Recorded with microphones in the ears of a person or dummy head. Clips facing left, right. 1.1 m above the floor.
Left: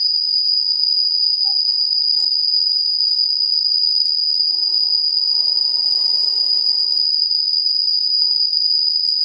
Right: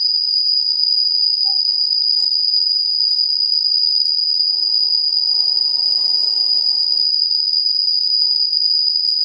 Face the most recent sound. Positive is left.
turn(degrees=-35)  # may be behind; listen again after turning